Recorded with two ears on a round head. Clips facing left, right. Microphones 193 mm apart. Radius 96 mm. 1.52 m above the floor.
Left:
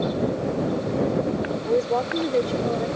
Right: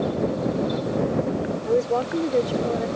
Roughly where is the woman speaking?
Centre.